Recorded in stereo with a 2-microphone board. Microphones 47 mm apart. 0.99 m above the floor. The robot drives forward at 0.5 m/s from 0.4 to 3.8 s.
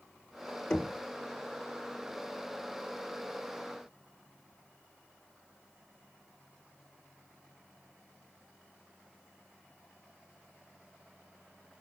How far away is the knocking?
About 2 m.